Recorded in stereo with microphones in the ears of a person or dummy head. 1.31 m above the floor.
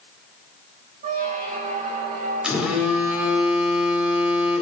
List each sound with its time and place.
1.0 s a squeak: 40° right (ahead or behind), 1.1 m
2.4 s a phone buzzing: 5° right (ahead or behind), 1.9 m